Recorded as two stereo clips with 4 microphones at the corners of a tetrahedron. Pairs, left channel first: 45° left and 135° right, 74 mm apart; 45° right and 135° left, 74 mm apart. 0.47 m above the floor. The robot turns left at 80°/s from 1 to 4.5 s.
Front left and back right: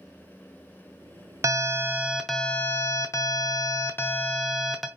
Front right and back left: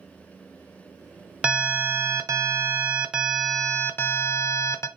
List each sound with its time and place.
1.4 s an alarm: 160° right, 0.7 m; by 4.9 s 45° right, 0.7 m